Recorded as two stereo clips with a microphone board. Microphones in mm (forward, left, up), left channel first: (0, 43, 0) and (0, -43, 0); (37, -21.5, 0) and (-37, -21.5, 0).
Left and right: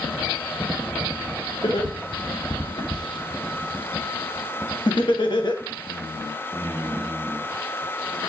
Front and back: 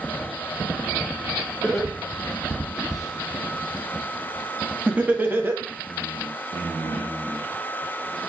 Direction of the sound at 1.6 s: 85° left.